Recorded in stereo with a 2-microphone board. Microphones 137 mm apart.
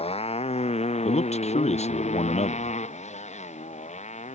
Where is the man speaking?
55° left (ahead or behind).